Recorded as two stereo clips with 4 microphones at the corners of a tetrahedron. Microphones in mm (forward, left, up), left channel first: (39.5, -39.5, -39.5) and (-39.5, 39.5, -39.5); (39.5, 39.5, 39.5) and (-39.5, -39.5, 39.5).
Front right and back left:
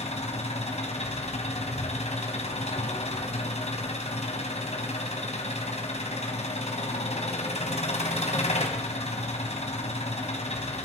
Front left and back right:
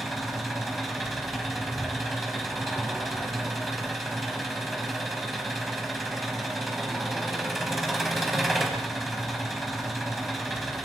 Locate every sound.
0.0 s an engine running: 45° right, 4.5 m